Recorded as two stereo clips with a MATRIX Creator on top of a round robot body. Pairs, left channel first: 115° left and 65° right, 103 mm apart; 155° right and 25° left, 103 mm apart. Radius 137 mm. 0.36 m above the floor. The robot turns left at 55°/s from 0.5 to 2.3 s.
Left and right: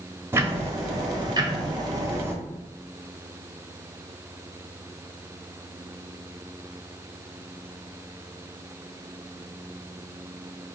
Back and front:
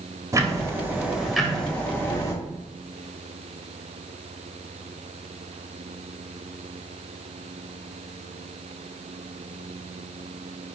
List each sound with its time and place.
0.3 s ticking: 15° right, 1.2 m; by 2.3 s 115° right, 1.2 m